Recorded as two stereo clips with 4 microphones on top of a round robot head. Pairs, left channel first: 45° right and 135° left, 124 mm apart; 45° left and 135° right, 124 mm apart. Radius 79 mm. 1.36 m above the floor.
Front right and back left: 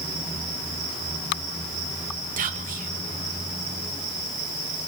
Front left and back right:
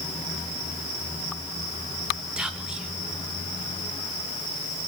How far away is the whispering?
About 1.7 m.